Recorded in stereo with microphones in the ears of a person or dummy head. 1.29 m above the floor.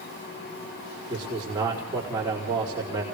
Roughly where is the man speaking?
Centre.